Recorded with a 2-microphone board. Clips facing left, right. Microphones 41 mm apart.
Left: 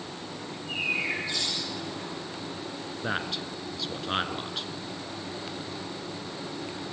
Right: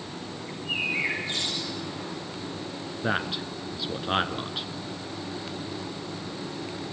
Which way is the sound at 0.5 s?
35° right (ahead or behind).